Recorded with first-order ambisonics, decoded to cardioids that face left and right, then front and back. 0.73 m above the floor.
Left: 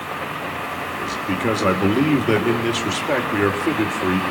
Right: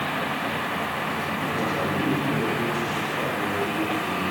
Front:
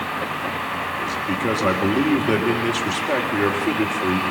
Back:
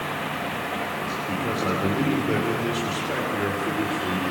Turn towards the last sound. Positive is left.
turn(degrees=60)